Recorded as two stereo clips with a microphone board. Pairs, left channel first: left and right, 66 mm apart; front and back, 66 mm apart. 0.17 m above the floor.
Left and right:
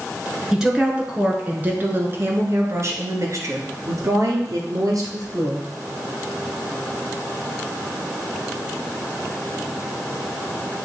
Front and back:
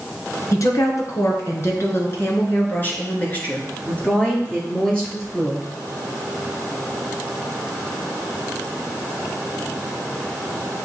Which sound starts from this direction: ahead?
A woman speaking, at 0.5 s.